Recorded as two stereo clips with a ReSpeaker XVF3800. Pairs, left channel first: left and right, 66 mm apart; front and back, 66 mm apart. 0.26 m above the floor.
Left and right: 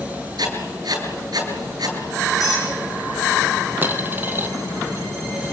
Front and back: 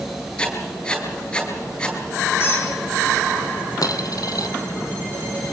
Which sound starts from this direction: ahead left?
A squeak, at 2.4 s.